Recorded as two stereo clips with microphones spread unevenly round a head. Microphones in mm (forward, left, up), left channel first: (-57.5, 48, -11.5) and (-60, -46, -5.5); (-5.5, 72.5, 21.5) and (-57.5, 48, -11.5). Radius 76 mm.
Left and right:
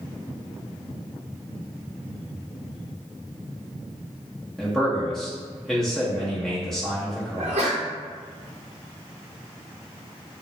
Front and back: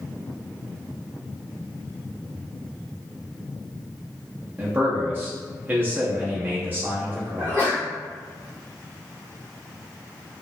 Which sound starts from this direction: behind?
A man speaking, at 4.6 s.